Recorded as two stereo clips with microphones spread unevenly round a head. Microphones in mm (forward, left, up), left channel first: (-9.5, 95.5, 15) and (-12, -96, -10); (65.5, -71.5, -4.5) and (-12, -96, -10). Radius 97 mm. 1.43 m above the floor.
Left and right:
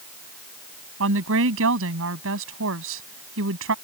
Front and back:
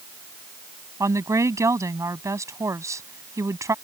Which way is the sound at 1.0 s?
110° right.